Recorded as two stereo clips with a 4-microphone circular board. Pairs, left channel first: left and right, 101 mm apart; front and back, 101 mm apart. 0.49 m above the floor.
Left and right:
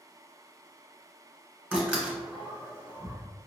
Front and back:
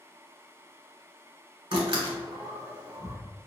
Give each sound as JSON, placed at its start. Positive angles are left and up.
{"t": 1.7, "sound": "a door slam", "azimuth_deg": -165, "distance_m": 1.2}